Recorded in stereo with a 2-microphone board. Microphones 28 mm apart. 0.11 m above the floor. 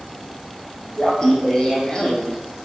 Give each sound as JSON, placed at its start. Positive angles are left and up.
{"t": 1.0, "sound": "laughter", "side_deg": 20, "distance_m": 4.5}